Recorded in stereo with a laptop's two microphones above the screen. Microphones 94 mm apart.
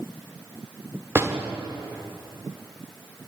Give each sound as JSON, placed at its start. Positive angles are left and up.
{"t": 1.1, "sound": "a door slam", "side_deg": -30, "distance_m": 2.0}